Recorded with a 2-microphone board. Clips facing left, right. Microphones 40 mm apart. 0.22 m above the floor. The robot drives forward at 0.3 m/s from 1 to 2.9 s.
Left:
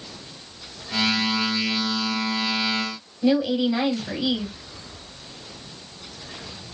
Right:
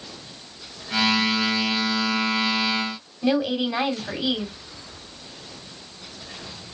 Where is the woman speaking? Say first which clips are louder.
Left 2 dB; 20° right (ahead or behind), 1.1 m.